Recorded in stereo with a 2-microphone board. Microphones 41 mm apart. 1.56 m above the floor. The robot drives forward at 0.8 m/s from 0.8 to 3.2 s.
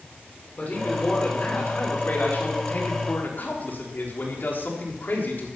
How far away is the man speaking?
About 6 m.